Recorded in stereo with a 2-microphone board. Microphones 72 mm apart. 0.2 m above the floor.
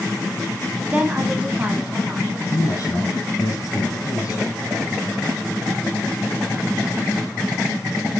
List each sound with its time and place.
0.9 s a woman speaking: 20° right (ahead or behind), 1.0 m; by 2.4 s 15° right (ahead or behind), 1.5 m
2.5 s a man speaking: 50° left (ahead or behind), 3.5 m